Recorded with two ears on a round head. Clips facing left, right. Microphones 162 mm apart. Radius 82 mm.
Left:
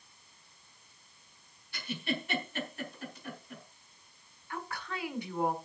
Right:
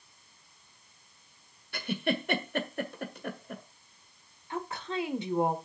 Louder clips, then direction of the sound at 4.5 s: Right 6 dB; 20° right (ahead or behind).